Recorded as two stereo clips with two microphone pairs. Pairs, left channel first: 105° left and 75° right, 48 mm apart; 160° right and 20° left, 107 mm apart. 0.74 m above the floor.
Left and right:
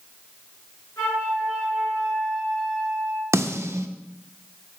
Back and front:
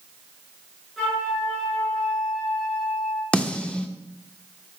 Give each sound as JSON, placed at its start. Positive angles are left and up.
{"t": 1.0, "sound": "a flute", "azimuth_deg": 110, "distance_m": 5.0}
{"t": 3.3, "sound": "a snare drum", "azimuth_deg": -80, "distance_m": 0.7}